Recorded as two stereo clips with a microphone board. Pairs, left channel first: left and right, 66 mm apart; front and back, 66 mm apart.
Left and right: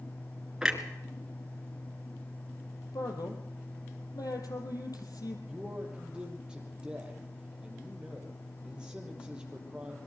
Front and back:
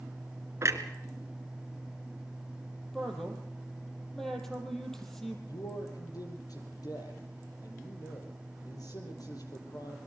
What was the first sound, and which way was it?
A clunk, 165° right.